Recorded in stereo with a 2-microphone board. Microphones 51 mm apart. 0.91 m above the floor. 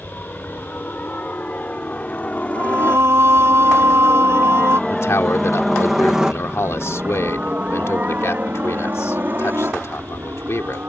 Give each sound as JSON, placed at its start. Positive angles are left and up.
{"t": 0.0, "sound": "a helicopter", "side_deg": 35}
{"t": 2.5, "sound": "singing", "side_deg": -60}
{"t": 4.9, "sound": "a man speaking", "side_deg": 60}